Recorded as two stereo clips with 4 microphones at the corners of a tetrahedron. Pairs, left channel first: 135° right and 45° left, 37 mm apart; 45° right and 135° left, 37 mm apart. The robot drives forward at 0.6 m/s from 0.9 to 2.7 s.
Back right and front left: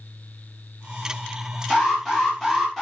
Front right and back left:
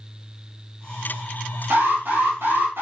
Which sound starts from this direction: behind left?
An alarm, at 1.7 s.